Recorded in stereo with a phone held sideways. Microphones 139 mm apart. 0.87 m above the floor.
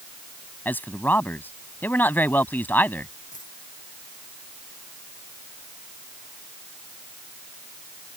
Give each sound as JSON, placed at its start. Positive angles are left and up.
{"t": 0.7, "sound": "a man speaking", "side_deg": 15}
{"t": 3.3, "sound": "a dropped coin", "side_deg": 65}